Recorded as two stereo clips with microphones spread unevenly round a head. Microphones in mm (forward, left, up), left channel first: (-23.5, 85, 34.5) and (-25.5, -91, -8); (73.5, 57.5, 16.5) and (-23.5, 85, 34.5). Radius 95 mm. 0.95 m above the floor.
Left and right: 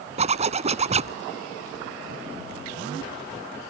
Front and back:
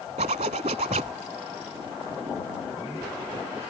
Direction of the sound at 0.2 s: 150° right.